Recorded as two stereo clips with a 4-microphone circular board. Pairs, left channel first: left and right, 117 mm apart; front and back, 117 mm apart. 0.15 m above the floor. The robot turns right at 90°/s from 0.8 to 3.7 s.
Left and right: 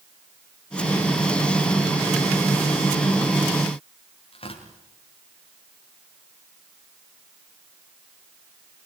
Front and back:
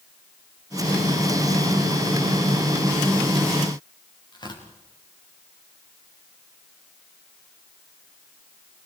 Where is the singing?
I don't hear singing.